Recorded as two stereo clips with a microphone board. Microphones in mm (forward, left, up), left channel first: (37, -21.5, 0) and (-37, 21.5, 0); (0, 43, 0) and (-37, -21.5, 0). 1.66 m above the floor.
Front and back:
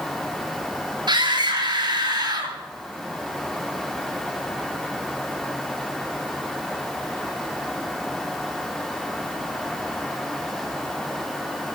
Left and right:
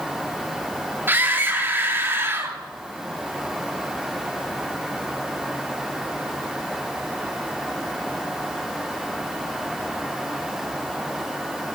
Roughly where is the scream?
Behind.